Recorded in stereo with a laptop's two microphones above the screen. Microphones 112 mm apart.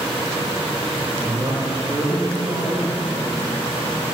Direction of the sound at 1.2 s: 40° right (ahead or behind).